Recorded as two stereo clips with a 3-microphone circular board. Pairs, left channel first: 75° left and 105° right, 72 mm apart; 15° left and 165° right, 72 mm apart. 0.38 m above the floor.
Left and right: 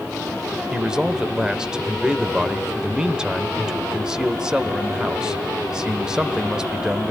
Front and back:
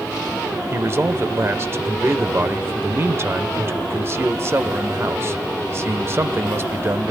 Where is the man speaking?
175° right, 1.0 m.